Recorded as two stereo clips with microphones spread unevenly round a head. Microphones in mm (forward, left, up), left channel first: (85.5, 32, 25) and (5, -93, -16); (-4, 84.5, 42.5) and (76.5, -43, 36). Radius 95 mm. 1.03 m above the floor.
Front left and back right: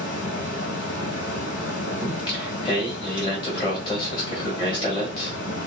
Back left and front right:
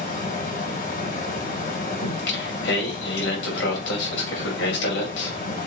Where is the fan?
95° left, 2.5 m.